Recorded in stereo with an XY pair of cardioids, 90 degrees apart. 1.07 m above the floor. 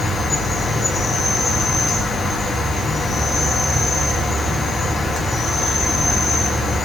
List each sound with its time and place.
0.0 s an insect: 45° left, 5.5 m